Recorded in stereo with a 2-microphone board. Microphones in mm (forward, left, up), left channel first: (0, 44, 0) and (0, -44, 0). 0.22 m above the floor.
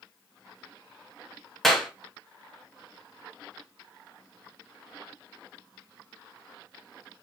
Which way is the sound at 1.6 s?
5° left (ahead or behind).